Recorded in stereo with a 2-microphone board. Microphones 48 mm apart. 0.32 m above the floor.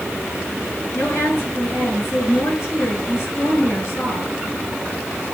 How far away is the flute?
I don't hear a flute.